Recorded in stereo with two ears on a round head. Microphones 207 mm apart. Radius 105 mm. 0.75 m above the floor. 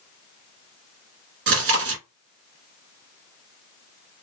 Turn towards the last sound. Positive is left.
turn(degrees=-60)  # may be behind; listen again after turning